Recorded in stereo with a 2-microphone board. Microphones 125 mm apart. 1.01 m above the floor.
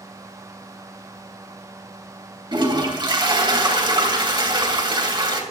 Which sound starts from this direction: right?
A toilet flushing, at 2.5 s.